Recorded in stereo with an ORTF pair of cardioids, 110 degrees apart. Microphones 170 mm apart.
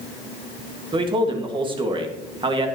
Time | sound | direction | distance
0.9 | a man speaking | 30° right | 1.9 m